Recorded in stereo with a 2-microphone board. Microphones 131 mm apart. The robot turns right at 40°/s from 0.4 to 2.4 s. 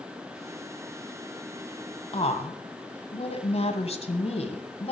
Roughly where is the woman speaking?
Left.